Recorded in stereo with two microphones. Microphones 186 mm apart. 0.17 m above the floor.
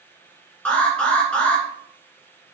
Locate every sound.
0.7 s an alarm: 5° left (ahead or behind), 2 m